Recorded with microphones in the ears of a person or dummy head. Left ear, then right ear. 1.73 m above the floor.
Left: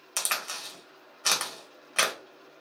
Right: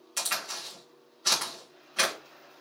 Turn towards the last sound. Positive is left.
turn(degrees=40)  # may be behind; listen again after turning